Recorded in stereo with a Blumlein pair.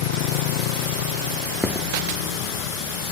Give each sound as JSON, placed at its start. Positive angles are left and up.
{"t": 0.0, "sound": "a motorcycle", "azimuth_deg": 45}
{"t": 1.6, "sound": "footsteps", "azimuth_deg": 5}